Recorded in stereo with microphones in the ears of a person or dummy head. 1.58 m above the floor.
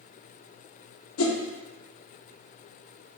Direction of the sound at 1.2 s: 75° left (ahead or behind).